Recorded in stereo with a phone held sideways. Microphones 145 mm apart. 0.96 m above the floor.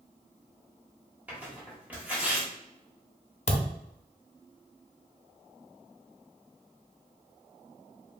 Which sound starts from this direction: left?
A thud, at 3.5 s.